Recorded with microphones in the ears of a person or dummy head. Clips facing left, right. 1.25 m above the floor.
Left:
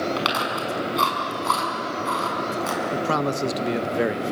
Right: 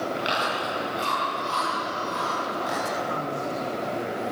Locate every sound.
0.2 s chewing: 80° left, 6.5 m
2.9 s a man speaking: 80° left, 1.3 m